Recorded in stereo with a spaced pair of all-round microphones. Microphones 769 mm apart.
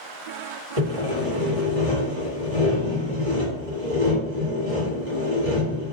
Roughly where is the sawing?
Right.